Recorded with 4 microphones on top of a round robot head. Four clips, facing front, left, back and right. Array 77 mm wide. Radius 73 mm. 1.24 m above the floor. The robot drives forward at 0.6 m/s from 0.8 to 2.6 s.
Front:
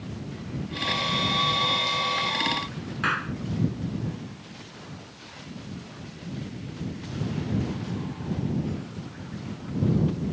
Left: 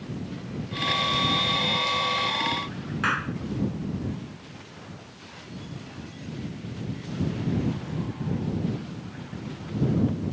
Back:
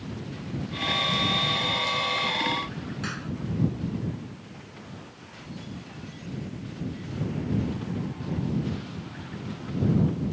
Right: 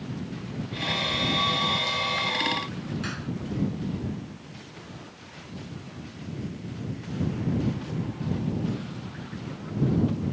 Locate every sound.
3.0 s a clap: 45° left